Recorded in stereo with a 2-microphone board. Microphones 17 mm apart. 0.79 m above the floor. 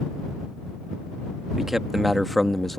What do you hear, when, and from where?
1.6 s a man speaking: 30° right (ahead or behind); by 2.8 s 15° left (ahead or behind)